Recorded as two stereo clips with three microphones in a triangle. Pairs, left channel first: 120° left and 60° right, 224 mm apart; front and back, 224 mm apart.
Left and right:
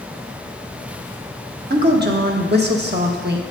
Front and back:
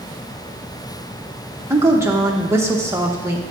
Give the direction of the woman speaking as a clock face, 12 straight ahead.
3 o'clock.